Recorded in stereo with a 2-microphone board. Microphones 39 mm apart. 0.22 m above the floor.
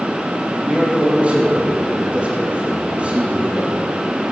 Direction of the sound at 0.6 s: 30° right (ahead or behind).